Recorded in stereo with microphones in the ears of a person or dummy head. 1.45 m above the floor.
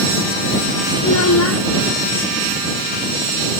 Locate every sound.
1.0 s a child speaking: 85° left